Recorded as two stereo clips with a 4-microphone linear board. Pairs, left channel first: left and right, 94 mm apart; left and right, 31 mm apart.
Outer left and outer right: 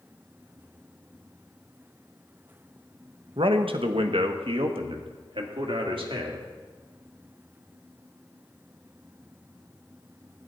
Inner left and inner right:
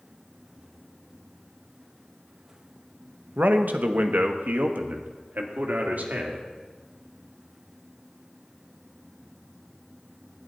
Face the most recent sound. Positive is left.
turn(degrees=-70)  # may be behind; listen again after turning